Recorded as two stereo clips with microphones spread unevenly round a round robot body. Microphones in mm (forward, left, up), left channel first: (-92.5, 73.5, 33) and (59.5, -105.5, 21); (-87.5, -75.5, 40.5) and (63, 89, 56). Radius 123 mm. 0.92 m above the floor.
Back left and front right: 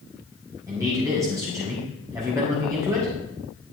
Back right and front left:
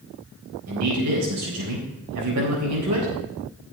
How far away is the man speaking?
About 4 m.